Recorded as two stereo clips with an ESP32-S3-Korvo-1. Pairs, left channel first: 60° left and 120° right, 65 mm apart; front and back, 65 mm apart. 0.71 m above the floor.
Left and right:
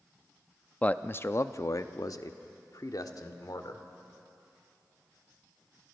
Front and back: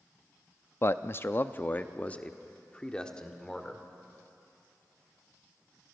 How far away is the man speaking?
About 0.6 m.